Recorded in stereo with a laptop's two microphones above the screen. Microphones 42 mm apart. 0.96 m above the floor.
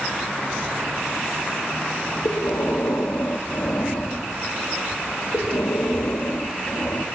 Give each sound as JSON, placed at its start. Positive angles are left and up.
{"t": 2.2, "sound": "breathing", "side_deg": 70, "distance_m": 0.6}